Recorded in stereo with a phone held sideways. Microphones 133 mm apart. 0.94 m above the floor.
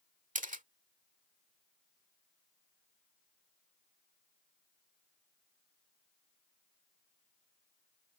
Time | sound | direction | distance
0.3 | a camera shutter | 75° right (ahead or behind) | ?